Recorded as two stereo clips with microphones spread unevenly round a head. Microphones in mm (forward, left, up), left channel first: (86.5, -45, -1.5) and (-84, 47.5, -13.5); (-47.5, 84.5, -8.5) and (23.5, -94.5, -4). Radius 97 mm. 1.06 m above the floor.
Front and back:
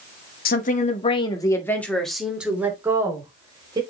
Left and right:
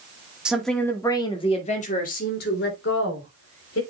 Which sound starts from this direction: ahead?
A woman speaking, at 0.5 s.